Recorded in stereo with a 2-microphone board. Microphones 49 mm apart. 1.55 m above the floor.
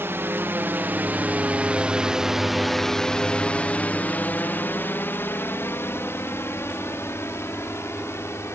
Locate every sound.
0.0 s a drone: 60° right (ahead or behind); by 8.5 s 70° left (ahead or behind)